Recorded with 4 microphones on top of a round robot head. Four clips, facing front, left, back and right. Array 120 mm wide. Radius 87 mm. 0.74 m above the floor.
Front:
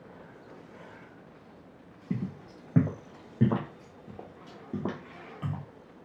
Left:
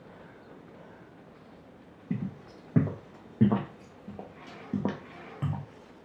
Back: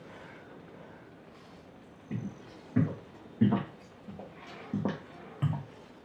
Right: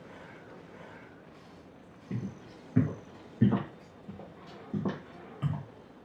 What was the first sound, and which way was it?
Footsteps, 40° left.